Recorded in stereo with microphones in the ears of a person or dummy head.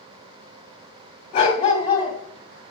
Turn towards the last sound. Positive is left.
turn(degrees=35)  # may be behind; listen again after turning